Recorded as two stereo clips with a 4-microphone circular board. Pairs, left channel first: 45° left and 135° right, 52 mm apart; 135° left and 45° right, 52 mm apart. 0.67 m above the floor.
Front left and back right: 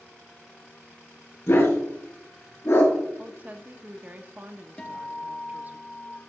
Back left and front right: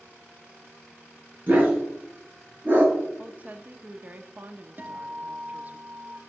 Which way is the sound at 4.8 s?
20° right.